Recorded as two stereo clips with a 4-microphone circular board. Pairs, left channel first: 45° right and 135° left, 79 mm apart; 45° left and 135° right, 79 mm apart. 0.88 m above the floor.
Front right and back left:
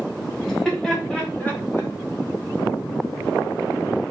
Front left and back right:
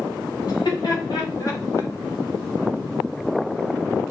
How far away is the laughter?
About 1.6 m.